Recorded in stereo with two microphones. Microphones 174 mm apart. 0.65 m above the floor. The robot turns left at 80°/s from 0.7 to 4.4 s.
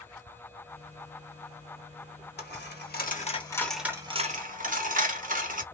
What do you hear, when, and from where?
2.4 s a dropped coin: 70° left (ahead or behind), 0.8 m; by 5.6 s 50° right (ahead or behind), 0.8 m